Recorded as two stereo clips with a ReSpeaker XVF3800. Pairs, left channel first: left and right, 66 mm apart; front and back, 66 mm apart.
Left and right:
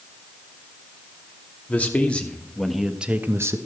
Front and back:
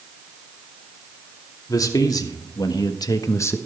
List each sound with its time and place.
1.7 s a man speaking: 25° left, 2.5 m; by 3.6 s 50° right, 1.2 m